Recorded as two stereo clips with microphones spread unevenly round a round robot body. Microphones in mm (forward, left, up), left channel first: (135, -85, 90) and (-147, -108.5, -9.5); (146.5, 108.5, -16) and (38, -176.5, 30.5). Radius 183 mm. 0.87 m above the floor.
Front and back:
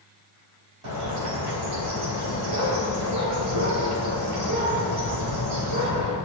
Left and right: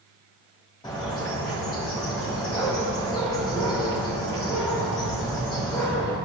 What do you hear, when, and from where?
0.8 s a bird: 150° left, 3.5 m